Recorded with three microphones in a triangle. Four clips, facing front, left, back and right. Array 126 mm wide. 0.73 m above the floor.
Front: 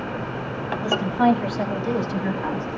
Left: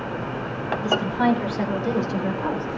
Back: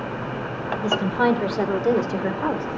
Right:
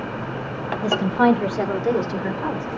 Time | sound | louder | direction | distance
0.8 | a woman speaking | right 4 dB, front 1 dB | 120° right | 3 m